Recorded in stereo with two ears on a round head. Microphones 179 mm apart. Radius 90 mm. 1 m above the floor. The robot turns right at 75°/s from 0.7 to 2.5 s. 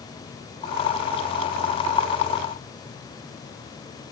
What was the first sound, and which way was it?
Only background noise.